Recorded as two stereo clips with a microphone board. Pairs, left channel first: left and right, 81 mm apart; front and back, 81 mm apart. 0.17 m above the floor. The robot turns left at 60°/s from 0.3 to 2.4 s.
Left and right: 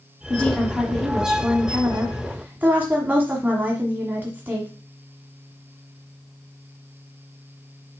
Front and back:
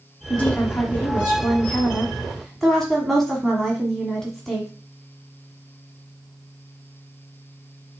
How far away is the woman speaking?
About 1.4 m.